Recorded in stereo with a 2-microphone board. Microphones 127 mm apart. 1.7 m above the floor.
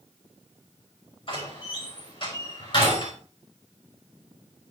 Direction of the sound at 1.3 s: 40° left (ahead or behind).